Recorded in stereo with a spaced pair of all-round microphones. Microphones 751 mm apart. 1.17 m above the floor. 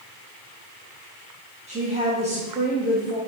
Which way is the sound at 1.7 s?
10° right (ahead or behind).